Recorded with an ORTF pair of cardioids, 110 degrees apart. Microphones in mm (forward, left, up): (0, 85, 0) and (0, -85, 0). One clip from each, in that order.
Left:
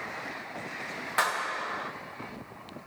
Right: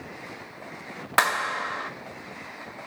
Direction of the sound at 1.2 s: 45° right.